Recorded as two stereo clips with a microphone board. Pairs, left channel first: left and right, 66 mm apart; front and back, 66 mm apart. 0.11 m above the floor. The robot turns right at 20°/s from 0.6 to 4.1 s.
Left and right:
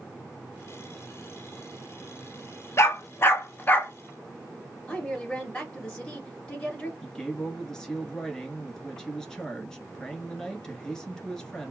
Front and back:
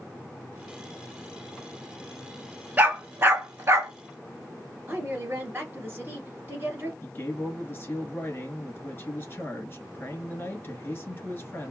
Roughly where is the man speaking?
Ahead.